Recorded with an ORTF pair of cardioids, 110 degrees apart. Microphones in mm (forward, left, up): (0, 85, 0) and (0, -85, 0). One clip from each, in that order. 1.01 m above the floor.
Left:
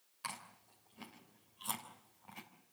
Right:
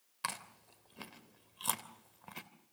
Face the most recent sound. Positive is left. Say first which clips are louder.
# right 5 dB
turn(degrees=-50)